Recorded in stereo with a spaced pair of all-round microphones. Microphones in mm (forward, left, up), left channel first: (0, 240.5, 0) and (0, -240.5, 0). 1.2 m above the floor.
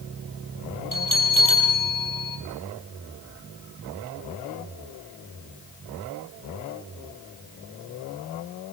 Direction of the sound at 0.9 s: 80° left.